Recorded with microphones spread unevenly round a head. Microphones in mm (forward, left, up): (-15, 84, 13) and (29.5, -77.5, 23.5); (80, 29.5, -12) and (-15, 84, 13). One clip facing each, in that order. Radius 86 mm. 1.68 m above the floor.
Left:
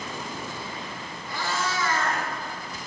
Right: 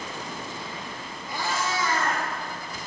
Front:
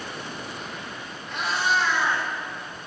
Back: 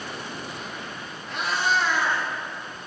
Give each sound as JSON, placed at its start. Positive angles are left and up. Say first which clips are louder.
{"t": 1.3, "sound": "a cat meowing", "louder": "right 1 dB, even", "azimuth_deg": -140, "distance_m": 1.3}